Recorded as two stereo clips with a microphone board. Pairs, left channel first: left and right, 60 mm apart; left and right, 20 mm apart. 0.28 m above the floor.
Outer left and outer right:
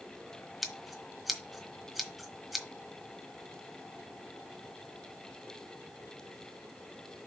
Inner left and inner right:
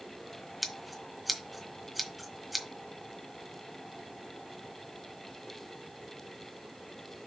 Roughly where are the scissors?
Centre.